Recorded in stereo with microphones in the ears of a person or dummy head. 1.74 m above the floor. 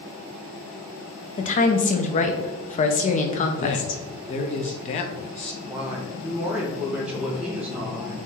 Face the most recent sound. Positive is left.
turn(degrees=-10)  # may be behind; listen again after turning